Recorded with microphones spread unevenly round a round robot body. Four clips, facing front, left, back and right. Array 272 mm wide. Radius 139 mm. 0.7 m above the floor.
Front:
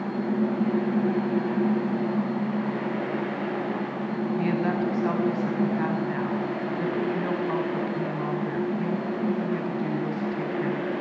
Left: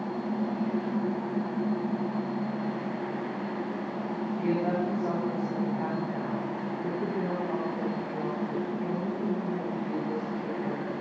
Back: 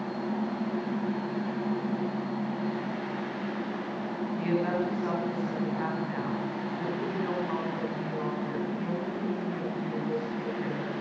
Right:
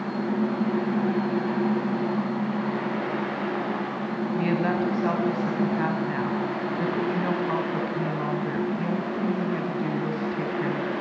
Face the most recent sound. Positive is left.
turn(degrees=-75)